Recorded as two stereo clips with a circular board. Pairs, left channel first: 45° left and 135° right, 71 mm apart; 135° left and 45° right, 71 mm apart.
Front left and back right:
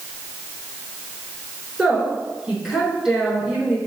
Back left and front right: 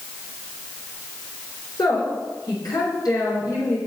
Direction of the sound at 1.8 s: 145° left.